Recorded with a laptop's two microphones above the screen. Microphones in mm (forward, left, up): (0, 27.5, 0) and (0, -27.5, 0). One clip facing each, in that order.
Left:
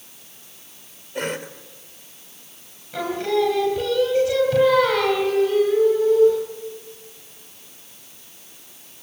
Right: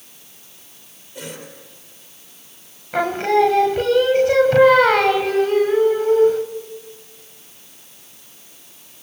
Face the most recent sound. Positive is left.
turn(degrees=-45)  # may be behind; listen again after turning